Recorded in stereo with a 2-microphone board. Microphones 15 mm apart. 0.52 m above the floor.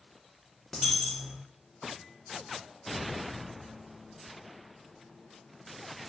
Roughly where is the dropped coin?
Centre.